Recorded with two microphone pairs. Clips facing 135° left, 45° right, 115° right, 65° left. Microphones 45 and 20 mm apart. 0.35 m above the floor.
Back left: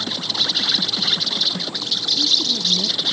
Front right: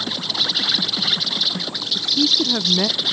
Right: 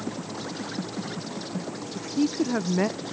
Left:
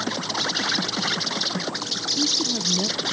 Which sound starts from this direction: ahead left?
An insect, at 0.0 s.